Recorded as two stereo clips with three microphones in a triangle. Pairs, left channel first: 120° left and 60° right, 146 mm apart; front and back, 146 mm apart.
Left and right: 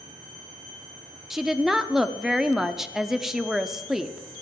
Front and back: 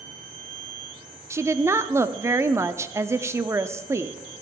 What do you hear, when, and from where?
1.3 s a woman speaking: 145° right, 0.6 m